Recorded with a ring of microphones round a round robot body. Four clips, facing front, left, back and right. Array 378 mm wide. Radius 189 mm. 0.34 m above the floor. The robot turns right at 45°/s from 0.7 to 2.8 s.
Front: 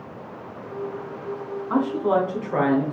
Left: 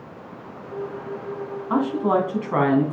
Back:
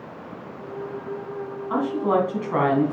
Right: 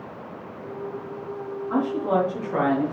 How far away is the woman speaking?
About 3 m.